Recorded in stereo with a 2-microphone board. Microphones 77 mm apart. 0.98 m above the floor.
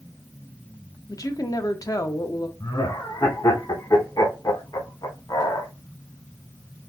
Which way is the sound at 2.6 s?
55° left (ahead or behind).